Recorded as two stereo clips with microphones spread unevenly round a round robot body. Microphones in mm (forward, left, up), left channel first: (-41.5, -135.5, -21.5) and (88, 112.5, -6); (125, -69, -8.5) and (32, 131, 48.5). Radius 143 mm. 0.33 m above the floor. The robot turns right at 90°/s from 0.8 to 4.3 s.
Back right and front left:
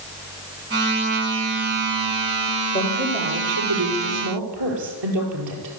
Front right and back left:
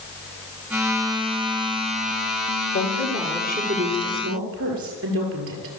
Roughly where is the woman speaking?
Ahead right.